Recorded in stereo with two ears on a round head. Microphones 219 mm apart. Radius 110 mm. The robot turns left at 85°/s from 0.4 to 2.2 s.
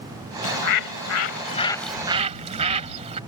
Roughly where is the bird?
Behind left.